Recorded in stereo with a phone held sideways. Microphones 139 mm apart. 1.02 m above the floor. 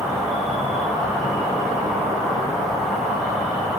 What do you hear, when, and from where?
0.0 s an insect: centre (ahead or behind), 2 m